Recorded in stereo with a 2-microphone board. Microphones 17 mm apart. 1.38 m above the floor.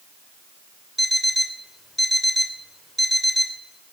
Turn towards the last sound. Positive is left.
turn(degrees=0)  # may be behind; listen again after turning